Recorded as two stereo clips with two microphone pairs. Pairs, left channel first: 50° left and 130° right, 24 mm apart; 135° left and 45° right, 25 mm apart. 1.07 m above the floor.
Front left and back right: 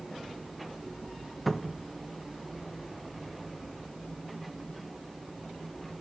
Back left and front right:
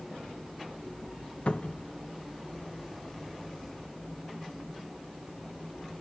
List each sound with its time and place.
1.5 s a cupboard door: 140° left, 0.7 m